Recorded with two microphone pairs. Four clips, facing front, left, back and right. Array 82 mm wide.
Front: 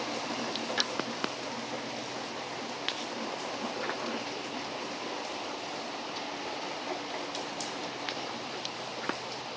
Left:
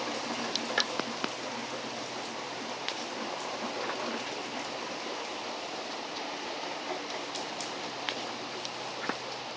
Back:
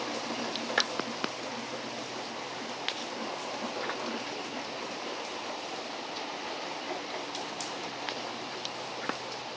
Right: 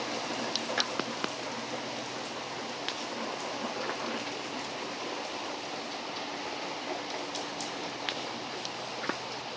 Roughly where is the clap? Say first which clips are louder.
Left 3 dB, back 7 dB; behind.